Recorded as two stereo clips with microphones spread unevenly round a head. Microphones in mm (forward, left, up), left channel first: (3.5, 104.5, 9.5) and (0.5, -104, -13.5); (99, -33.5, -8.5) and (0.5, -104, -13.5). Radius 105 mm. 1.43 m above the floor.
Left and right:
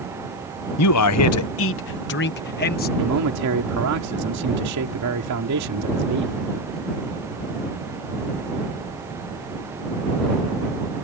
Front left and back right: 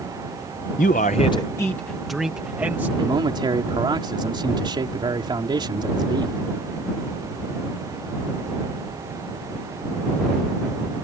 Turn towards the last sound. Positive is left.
turn(degrees=-95)